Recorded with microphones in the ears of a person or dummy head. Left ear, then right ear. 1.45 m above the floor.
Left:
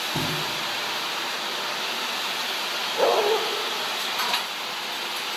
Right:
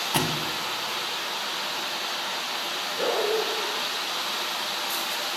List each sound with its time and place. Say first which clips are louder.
0.1 s a thud: right 1 dB; 40° right (ahead or behind), 2 m
3.0 s a dog barking: left 5 dB; 30° left (ahead or behind), 2 m